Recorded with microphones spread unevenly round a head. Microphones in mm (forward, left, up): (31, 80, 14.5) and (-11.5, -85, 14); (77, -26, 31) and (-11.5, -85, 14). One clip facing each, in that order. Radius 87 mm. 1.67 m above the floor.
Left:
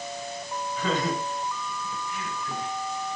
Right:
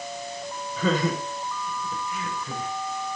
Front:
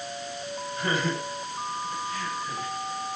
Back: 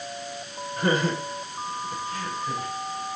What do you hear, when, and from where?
0.8 s laughter: 110° right, 8.5 m; by 2.7 s 105° right, 9.5 m